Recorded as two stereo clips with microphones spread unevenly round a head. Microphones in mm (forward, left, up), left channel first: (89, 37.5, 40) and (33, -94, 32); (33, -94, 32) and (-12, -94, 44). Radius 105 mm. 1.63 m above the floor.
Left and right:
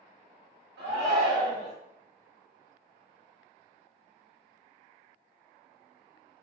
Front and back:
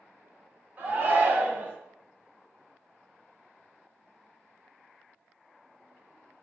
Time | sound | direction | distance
0.8 | a shout | 125° right | 1.3 m